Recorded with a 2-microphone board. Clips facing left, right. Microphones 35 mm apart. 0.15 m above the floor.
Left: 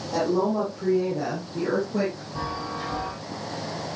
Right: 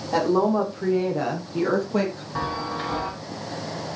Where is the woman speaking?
65° right (ahead or behind), 6 m; by 2.2 s 70° right (ahead or behind), 4.5 m.